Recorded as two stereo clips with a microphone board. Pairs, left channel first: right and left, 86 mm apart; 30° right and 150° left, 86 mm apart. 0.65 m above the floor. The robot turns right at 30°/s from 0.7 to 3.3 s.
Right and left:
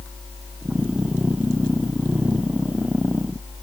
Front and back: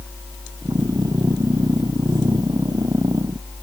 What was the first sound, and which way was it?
Only background noise.